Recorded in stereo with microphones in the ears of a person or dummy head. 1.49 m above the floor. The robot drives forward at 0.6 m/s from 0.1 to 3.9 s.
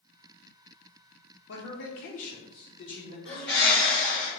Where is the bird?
10° left (ahead or behind), 1.6 m.